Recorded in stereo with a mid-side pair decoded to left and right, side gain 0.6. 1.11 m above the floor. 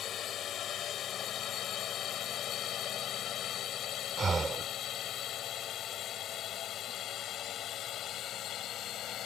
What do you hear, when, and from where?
0.0 s a drone: 45° left; by 9.3 s 50° left
4.2 s breathing: 30° right